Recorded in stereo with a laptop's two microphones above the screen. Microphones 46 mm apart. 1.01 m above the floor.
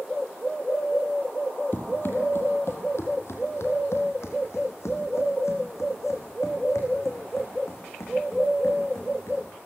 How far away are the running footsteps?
About 1.9 m.